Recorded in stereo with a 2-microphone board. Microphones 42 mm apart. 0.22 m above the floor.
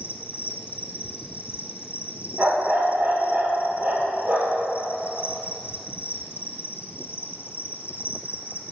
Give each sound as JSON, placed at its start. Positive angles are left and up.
{"t": 0.0, "sound": "an insect", "side_deg": 60, "distance_m": 0.9}
{"t": 2.4, "sound": "a dog barking", "side_deg": -45, "distance_m": 2.0}